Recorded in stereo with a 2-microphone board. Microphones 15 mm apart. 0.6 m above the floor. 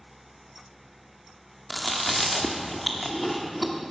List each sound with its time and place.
1.7 s chewing: centre (ahead or behind), 1.0 m